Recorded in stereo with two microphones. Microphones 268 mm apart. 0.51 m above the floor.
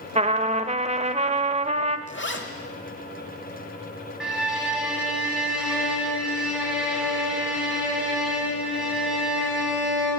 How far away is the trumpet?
About 0.6 m.